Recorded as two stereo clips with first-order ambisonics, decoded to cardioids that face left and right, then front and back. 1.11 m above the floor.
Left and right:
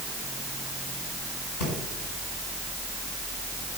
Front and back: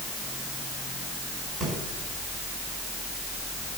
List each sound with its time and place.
1.6 s breathing: 100° left, 5 m